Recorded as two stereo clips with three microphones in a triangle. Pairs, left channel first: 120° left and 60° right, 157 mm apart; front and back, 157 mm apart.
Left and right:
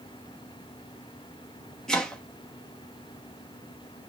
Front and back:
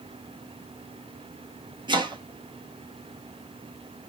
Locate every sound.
1.9 s chopping: 155° right, 0.7 m